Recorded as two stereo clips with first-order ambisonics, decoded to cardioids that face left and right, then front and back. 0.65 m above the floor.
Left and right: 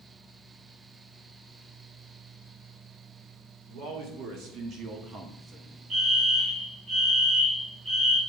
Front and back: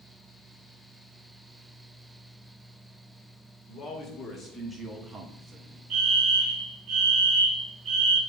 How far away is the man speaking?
About 2 m.